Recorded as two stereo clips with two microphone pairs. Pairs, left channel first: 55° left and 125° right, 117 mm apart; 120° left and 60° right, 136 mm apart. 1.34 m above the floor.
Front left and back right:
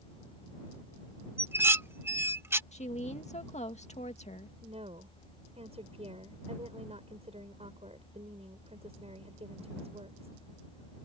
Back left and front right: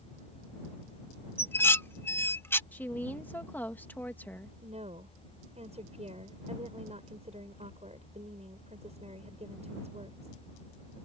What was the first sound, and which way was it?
Dishes clattering, 175° right.